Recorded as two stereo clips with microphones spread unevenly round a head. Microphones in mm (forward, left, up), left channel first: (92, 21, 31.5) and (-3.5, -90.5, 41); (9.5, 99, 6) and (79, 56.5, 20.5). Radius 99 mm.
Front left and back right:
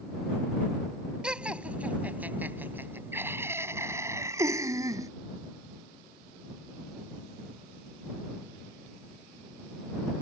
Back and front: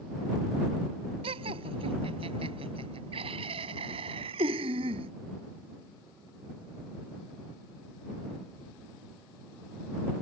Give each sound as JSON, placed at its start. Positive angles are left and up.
{"t": 1.2, "sound": "laughter", "azimuth_deg": -45}